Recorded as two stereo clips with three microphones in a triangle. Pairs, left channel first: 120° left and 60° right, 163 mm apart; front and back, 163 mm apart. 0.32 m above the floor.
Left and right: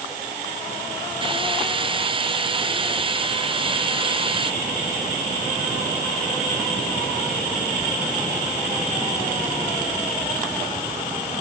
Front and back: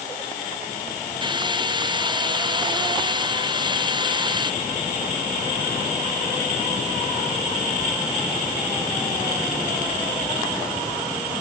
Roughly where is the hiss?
Behind right.